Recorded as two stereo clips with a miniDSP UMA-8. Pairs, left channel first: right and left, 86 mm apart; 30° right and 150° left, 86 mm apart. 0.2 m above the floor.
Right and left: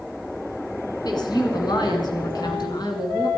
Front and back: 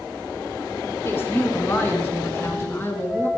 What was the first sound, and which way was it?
A woman speaking, 85° right.